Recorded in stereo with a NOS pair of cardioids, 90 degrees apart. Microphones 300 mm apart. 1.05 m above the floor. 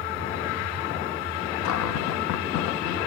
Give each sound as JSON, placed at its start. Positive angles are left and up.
{"t": 1.6, "sound": "a cupboard door", "azimuth_deg": 65, "distance_m": 1.0}